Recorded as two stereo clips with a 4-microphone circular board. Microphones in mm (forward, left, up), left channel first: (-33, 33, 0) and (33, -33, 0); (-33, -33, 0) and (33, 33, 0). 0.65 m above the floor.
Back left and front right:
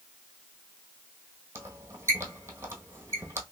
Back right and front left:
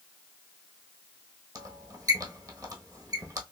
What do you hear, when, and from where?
1.6 s a squeak: 5° left, 1.1 m